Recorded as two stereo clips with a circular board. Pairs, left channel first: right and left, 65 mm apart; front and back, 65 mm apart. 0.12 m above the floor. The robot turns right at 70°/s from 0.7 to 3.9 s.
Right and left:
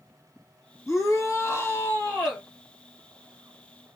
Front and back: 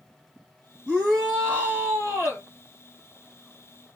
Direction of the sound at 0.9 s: 110° right.